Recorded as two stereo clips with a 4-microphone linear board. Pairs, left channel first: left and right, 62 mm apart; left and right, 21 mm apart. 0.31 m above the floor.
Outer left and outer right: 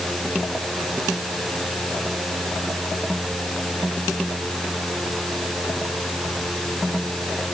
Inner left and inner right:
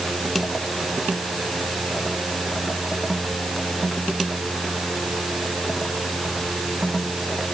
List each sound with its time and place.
Only background noise.